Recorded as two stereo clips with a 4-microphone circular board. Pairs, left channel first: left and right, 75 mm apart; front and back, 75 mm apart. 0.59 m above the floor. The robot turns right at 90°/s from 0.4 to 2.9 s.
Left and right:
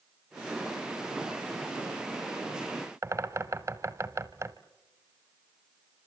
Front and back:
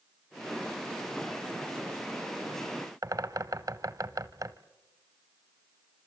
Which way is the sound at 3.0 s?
140° right.